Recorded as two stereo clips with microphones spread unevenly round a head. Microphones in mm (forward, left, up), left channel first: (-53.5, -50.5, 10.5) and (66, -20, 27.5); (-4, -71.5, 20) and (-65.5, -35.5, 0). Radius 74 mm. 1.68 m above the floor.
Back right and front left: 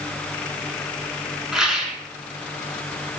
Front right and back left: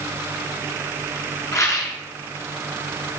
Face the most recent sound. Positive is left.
turn(degrees=-70)